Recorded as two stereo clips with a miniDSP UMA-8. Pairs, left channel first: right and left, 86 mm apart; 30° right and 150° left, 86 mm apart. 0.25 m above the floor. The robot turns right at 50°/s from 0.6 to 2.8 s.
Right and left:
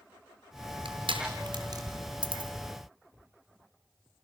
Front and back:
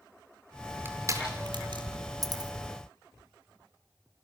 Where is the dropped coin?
105° left, 2 m; by 2.5 s 120° left, 2 m.